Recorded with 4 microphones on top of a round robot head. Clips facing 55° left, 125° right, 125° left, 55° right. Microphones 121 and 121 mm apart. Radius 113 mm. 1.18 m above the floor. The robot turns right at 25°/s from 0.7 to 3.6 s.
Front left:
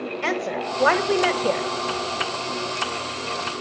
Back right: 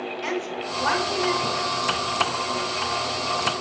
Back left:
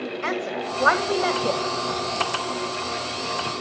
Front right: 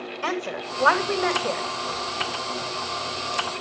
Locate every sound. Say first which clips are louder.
0.2 s a woman speaking: front left 4 dB, even; 25° left, 2.5 m; by 1.6 s 50° left, 2.5 m